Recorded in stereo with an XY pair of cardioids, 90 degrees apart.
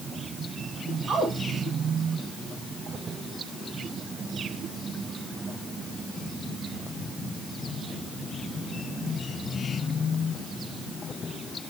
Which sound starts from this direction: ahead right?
A woman speaking, at 1.1 s.